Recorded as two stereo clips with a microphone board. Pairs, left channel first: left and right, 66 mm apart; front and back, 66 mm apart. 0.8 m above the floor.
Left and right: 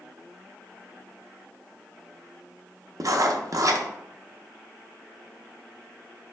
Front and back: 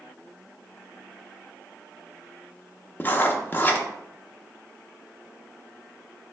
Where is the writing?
60° right, 0.5 m.